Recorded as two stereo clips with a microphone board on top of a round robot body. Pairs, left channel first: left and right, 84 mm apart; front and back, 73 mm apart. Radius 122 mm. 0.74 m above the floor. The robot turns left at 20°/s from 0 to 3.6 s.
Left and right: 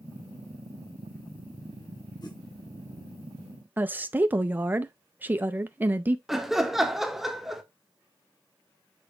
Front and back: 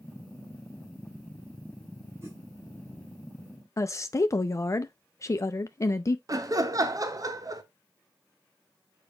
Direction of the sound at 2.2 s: 125° left.